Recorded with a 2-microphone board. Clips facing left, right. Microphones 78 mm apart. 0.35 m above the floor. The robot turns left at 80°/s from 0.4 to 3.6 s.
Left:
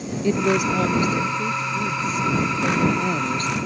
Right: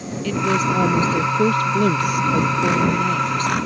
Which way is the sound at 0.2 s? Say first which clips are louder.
Even; 25° left.